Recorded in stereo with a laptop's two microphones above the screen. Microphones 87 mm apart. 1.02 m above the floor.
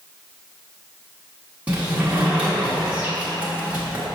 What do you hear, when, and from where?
1.7 s a sliding door: 15° right (ahead or behind), 1.1 m